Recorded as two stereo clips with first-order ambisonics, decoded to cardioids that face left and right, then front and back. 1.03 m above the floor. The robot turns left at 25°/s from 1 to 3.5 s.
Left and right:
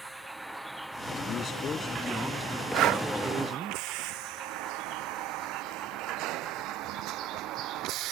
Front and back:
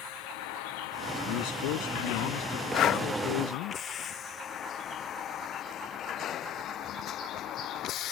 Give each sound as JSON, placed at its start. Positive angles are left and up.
{"t": 0.0, "sound": "a vehicle", "azimuth_deg": -5}
{"t": 1.3, "sound": "a man speaking", "azimuth_deg": 30}
{"t": 2.7, "sound": "breathing", "azimuth_deg": -45}